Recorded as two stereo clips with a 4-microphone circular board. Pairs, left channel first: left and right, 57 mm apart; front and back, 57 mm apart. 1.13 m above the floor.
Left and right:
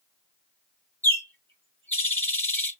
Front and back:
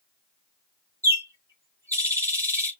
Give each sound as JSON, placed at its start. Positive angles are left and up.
{"t": 1.0, "sound": "a bird", "azimuth_deg": 145, "distance_m": 3.5}